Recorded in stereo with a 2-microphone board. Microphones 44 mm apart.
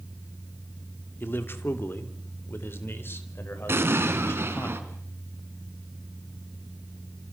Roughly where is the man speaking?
Left.